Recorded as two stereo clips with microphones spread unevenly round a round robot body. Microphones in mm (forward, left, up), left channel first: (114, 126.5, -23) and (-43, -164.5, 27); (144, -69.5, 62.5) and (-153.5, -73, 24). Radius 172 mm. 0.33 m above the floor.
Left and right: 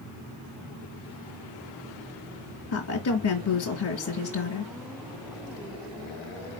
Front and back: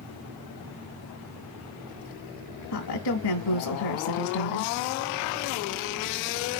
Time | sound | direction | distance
2.7 | a woman speaking | 30° left | 1.4 m